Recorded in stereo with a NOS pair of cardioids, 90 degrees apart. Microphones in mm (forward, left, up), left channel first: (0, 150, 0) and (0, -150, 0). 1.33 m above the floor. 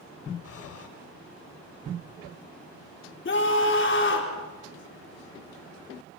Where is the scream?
40° left, 4.5 m.